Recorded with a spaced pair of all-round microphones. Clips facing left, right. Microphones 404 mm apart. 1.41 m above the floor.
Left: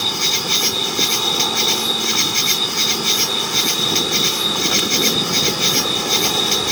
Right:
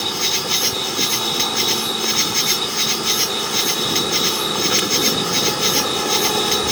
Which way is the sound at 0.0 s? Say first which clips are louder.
Even; 15° left (ahead or behind).